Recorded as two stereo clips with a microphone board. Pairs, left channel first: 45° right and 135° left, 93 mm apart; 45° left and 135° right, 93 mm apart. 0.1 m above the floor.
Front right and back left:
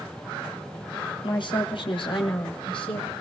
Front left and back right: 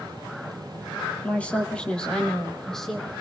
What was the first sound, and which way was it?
A woman speaking, 25° right.